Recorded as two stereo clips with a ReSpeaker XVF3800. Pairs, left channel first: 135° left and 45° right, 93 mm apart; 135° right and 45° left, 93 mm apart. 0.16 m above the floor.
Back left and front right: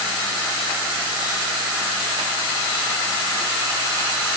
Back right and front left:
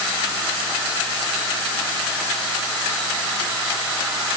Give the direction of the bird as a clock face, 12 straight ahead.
I don't hear a bird.